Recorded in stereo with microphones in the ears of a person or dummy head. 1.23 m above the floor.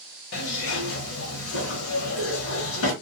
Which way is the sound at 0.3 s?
70° left (ahead or behind).